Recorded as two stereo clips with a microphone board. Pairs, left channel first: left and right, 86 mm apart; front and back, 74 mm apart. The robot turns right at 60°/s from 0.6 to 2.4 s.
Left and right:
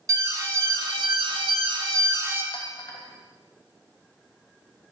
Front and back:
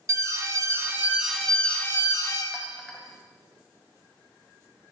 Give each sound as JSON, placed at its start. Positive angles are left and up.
{"t": 0.1, "sound": "an alarm", "azimuth_deg": -135, "distance_m": 1.3}
{"t": 2.5, "sound": "a clink", "azimuth_deg": 95, "distance_m": 0.8}